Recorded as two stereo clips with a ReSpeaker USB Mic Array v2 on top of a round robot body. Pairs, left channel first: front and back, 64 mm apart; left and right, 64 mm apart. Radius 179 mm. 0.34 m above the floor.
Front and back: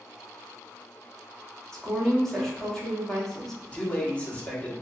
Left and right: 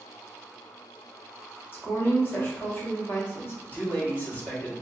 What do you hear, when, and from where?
1.7 s a woman speaking: 80° left, 1.5 m
3.6 s a man speaking: 55° left, 1.7 m